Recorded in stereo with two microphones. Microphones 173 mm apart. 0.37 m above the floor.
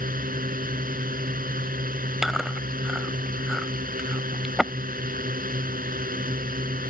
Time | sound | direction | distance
0.0 | a drone | 55° right (ahead or behind) | ?
2.2 | chewing | centre (ahead or behind) | ?